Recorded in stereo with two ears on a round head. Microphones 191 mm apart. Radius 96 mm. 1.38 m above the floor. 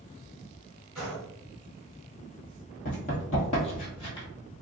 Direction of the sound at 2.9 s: 35° left (ahead or behind).